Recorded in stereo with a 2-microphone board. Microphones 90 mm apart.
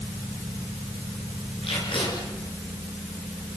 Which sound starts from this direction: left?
Tape being pulled, at 1.6 s.